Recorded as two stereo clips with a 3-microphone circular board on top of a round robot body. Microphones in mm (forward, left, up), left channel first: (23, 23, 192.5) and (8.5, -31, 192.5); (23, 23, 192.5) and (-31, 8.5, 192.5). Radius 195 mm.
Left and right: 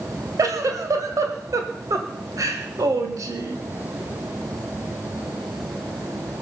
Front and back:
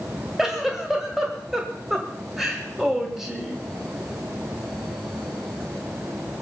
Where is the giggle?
85° right, 1.6 m.